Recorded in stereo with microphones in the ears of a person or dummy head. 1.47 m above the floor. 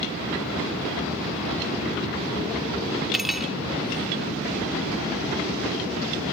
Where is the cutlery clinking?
Centre (ahead or behind).